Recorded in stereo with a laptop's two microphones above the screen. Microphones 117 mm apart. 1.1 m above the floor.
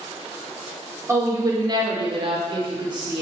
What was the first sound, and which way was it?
A woman speaking, 25° right (ahead or behind).